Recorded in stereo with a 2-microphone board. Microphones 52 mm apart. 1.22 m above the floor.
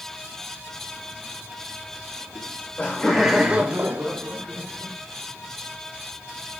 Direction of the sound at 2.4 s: 50° left (ahead or behind).